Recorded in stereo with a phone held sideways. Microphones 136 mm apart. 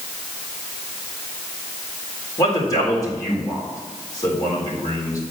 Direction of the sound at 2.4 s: 30° left (ahead or behind).